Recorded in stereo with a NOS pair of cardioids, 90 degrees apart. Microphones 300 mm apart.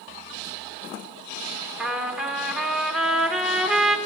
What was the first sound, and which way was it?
A trumpet, 5° right.